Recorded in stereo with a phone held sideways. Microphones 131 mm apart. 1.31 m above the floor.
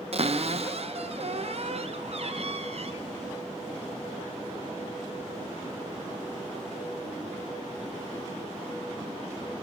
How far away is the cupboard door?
About 0.5 m.